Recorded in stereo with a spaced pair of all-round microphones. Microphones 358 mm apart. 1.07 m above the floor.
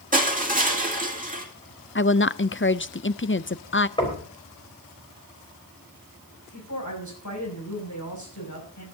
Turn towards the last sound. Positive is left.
turn(degrees=55)  # may be behind; listen again after turning